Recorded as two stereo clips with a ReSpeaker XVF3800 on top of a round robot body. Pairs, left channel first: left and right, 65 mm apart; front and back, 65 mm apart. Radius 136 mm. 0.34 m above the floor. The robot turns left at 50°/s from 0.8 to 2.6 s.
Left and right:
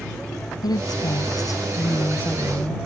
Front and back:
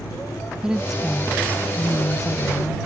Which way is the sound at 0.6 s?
100° left.